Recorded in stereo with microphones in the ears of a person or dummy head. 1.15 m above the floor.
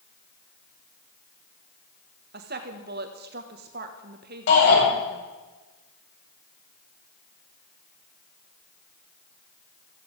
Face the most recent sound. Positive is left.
turn(degrees=70)  # may be behind; listen again after turning